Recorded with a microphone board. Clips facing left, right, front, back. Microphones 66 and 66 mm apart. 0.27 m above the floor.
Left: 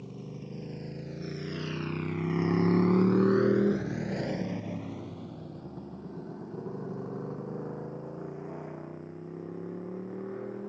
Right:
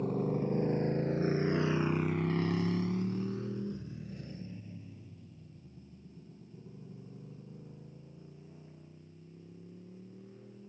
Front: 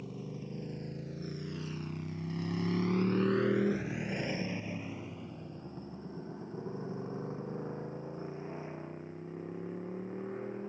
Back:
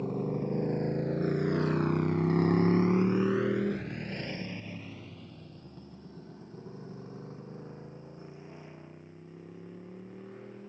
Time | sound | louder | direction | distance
0.0 | a motorcycle | right 11 dB, back 11 dB | 135° right | ?